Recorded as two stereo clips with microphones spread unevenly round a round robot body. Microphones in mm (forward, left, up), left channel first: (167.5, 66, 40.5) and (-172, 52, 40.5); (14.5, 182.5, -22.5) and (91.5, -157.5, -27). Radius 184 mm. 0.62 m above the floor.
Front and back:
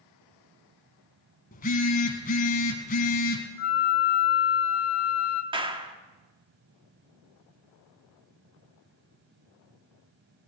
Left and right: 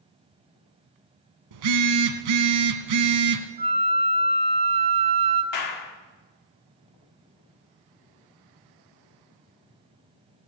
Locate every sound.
1.5 s a phone buzzing: 65° right, 1.3 m
3.6 s a flute: 5° right, 1.5 m
5.5 s a clap: 110° left, 1.4 m